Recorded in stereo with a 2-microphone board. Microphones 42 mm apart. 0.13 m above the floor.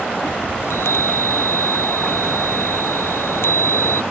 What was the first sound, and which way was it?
A chime, 80° left.